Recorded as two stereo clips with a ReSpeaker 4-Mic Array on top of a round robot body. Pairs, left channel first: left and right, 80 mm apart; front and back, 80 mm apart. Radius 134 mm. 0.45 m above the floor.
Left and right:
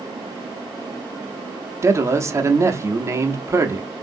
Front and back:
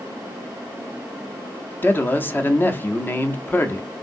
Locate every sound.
1.8 s a man speaking: 55° right, 0.9 m